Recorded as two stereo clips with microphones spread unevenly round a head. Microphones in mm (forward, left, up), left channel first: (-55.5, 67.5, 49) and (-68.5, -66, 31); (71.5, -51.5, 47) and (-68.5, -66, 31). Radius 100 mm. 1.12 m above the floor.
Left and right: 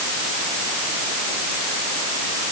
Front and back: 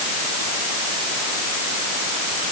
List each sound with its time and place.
Only background noise.